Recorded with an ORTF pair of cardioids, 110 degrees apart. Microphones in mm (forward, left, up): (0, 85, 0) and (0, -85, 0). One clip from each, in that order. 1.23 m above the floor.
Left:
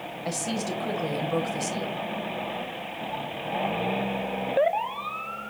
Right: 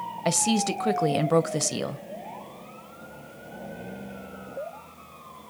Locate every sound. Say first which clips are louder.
0.2 s a woman speaking: right 6 dB; 40° right, 0.5 m